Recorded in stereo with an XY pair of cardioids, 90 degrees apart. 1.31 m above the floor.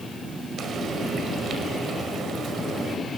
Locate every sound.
0.6 s frying: 65° right, 5.5 m